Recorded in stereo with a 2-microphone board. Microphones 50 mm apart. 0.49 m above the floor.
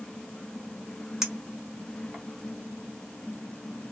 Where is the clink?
10° right (ahead or behind), 1.1 m.